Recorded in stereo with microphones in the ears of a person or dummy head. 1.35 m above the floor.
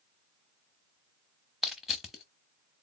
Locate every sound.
1.6 s crushing: centre (ahead or behind), 0.8 m